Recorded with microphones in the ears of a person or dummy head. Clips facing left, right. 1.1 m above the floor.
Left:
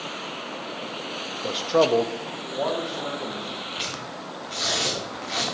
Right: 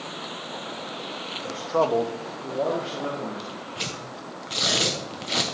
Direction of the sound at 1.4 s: 45° left (ahead or behind).